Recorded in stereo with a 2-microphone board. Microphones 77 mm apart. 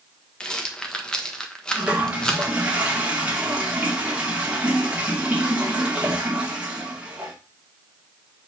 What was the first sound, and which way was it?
A rattle, 10° left (ahead or behind).